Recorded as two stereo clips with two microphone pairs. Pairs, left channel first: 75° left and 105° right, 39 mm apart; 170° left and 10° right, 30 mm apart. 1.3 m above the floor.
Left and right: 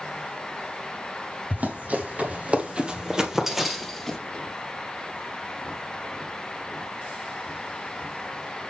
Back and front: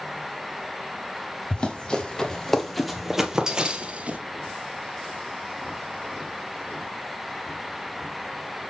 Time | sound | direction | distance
1.5 | running footsteps | 140° right | 2 m